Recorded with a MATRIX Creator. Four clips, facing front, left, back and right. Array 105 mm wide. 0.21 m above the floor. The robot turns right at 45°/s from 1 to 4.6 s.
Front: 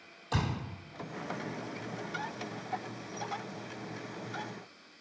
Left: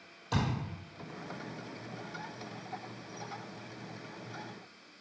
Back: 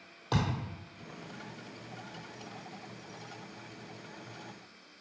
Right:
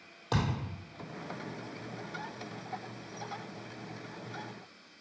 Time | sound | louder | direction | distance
0.3 | a thud | right 1 dB, back 2 dB | 130° right | 1.7 m